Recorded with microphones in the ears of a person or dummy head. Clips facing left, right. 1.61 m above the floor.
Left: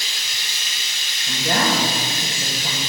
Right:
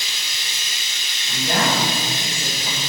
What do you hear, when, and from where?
0.0 s running water: 20° right (ahead or behind), 3.5 m
1.3 s a woman speaking: 50° left (ahead or behind), 2.5 m